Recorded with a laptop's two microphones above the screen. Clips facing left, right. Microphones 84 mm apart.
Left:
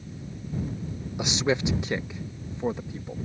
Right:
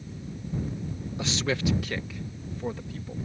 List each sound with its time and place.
1.2 s a man speaking: 15° left (ahead or behind); by 3.1 s 20° left (ahead or behind)